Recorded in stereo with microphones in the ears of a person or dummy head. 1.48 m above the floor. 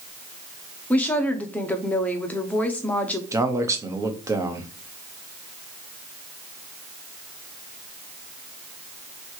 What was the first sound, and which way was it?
A woman speaking, 10° left (ahead or behind).